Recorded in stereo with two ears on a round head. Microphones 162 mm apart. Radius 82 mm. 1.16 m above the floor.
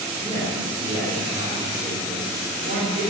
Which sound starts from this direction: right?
A man speaking, at 0.2 s.